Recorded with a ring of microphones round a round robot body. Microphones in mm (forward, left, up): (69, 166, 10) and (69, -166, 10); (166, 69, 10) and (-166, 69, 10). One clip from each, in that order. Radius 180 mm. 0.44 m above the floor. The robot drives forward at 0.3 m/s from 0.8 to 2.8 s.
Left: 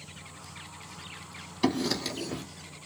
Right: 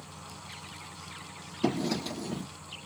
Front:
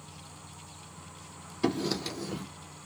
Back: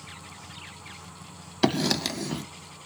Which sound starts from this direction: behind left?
Writing, at 1.6 s.